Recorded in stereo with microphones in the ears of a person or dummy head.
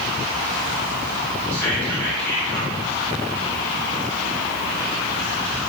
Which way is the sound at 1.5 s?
15° left (ahead or behind).